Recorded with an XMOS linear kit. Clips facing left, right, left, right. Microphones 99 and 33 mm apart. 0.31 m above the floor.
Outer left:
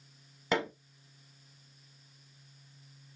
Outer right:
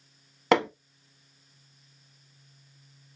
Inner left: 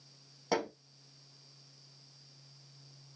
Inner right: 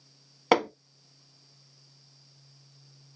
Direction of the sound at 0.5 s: 80° right.